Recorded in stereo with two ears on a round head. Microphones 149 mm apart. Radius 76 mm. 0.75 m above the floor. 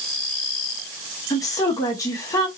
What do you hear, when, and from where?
1.3 s a woman speaking: 20° left (ahead or behind), 0.9 m